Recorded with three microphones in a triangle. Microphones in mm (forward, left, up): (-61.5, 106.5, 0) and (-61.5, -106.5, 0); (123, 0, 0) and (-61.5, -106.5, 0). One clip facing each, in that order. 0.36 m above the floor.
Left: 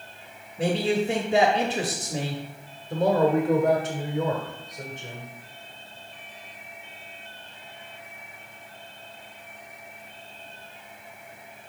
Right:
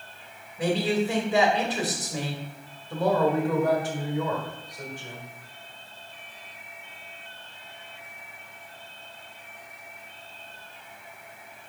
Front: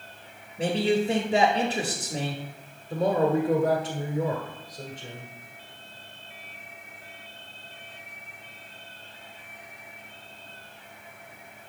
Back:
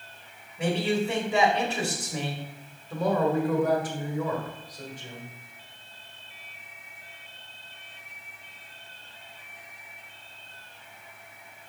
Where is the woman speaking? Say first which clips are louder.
Left 2 dB, front 2 dB; 55° left, 1.5 m.